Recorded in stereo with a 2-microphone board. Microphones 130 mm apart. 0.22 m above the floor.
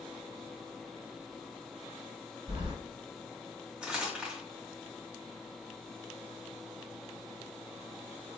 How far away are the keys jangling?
About 1.8 m.